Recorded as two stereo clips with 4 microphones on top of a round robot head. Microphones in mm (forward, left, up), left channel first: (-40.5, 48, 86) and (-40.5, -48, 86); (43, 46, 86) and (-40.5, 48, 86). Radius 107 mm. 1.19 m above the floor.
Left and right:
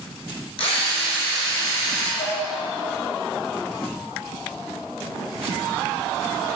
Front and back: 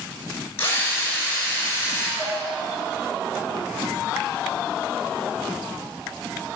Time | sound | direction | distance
0.6 | a drill | 60° left | 6 m
2.2 | dishes clattering | 100° left | 6 m